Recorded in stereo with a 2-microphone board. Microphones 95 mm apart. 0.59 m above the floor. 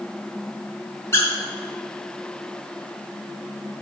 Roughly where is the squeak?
Left.